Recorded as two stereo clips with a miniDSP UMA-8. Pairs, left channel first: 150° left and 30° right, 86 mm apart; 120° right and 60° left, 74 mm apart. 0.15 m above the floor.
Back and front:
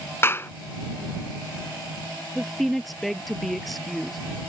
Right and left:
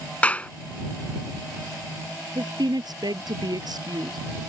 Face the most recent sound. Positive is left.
turn(degrees=60)